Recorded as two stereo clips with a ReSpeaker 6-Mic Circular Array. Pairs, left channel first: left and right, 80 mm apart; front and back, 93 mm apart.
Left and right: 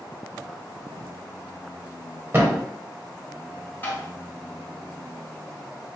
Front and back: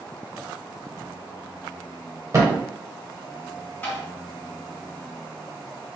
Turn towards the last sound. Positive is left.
turn(degrees=55)